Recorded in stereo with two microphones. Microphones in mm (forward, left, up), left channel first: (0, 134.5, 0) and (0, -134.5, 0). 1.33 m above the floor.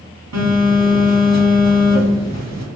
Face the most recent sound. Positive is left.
turn(degrees=-80)